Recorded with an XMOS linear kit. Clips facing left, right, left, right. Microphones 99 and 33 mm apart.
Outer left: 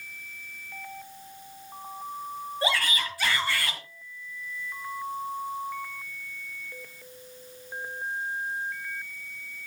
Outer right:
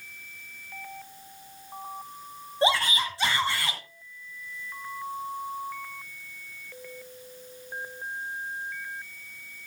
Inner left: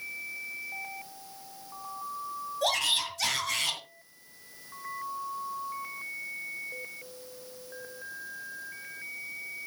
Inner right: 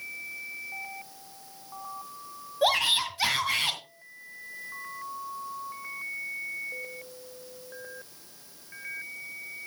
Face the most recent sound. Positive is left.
turn(degrees=-25)  # may be behind; listen again after turning